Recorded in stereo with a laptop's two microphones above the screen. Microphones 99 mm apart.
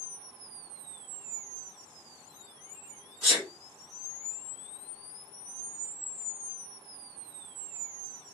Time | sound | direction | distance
3.2 | a sneeze | 20° right (ahead or behind) | 1.4 m